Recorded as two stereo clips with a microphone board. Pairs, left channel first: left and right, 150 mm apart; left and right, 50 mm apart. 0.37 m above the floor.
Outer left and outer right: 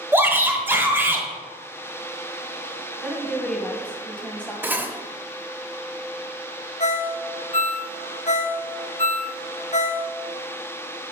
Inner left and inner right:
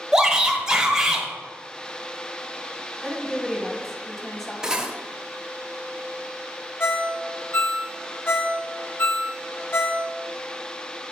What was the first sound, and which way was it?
A shout, 15° right (ahead or behind).